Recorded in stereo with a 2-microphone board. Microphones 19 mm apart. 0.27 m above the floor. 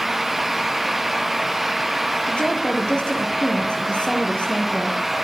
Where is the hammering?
No hammering in this recording.